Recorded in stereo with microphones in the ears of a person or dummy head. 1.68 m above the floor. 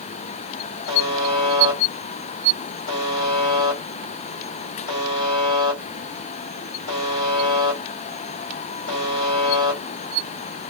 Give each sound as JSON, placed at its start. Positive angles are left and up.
{"t": 0.9, "sound": "a buzzer", "side_deg": 45, "distance_m": 2.5}